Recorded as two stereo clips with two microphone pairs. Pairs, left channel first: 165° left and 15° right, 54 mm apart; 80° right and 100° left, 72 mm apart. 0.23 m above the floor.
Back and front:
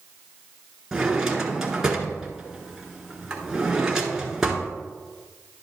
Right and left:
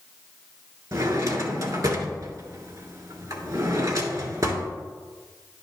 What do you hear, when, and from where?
0.9 s a drawer: 65° left, 1.2 m